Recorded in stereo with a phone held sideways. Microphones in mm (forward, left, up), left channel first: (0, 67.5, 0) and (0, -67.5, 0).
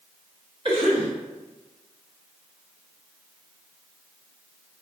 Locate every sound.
0.7 s a cough: 45° right (ahead or behind), 1.1 m